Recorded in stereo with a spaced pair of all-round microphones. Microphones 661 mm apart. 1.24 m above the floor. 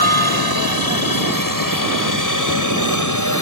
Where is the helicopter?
35° left (ahead or behind); by 3.4 s 25° left (ahead or behind).